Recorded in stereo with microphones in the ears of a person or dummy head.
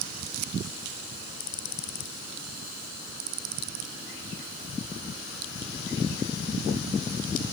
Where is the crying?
I don't hear crying.